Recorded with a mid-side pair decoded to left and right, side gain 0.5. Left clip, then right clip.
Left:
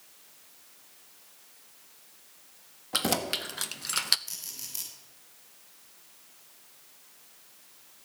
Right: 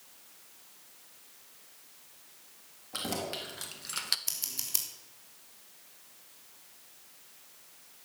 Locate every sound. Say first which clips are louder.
2.9 s keys jangling: left 7 dB; 60° left, 1.6 m; by 4.2 s 30° left, 0.6 m
4.3 s scissors: right 4 dB; 55° right, 3 m